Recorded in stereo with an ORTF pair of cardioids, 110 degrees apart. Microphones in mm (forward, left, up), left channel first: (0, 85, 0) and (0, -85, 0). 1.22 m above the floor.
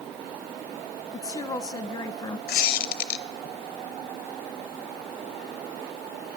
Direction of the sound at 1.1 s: 20° left.